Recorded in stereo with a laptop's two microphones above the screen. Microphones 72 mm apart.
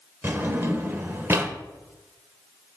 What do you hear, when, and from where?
0.2 s a drawer: 30° right (ahead or behind), 0.7 m